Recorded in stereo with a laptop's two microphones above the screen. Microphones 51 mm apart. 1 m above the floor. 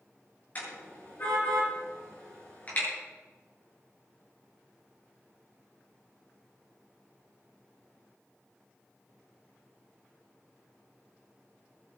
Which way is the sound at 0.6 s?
30° left (ahead or behind).